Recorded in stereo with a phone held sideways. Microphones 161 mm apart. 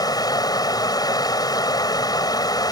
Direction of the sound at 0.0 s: 25° left (ahead or behind).